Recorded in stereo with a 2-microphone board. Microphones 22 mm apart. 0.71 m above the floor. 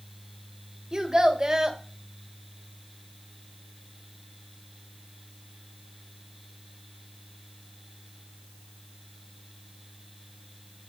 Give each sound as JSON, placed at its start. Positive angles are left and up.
{"t": 0.9, "sound": "a child speaking", "side_deg": -30, "distance_m": 1.5}